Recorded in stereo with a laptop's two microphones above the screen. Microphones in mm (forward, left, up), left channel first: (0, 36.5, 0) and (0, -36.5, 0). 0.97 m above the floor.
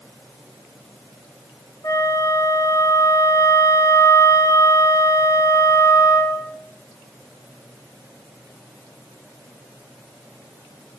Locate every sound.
1.8 s a flute: 55° left (ahead or behind), 4 m